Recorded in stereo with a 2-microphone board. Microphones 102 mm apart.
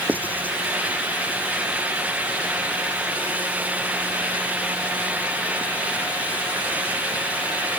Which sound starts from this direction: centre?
Writing, at 0.1 s.